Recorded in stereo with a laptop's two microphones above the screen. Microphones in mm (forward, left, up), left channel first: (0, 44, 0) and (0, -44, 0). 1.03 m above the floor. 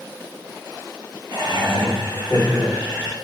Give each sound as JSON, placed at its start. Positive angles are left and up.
{"t": 1.3, "sound": "laughter", "side_deg": -55, "distance_m": 1.4}